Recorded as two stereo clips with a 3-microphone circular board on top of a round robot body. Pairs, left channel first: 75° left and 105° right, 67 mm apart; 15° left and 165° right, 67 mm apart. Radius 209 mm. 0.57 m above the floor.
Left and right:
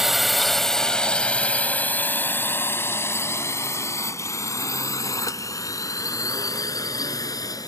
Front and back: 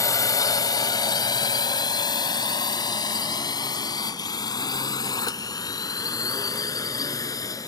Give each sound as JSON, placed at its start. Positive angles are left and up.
{"t": 0.0, "sound": "a drone", "azimuth_deg": -20}